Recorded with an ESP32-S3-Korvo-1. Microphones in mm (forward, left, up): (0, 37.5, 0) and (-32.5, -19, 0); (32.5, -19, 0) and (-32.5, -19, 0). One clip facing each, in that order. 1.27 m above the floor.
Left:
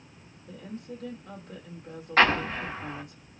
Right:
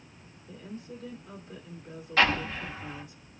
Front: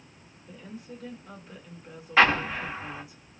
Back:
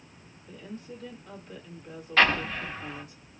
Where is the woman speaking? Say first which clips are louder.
Left 2 dB, back 1 dB; 85° left, 1.6 m.